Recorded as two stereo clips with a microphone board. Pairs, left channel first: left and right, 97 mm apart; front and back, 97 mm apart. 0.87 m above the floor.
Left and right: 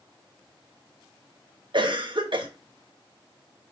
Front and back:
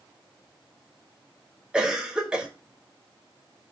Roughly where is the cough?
Right.